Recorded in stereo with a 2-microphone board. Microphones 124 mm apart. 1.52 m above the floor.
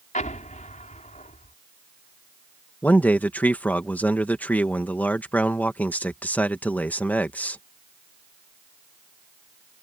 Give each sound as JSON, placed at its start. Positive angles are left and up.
{"t": 0.1, "sound": "an explosion", "side_deg": 85}
{"t": 2.8, "sound": "a man speaking", "side_deg": 15}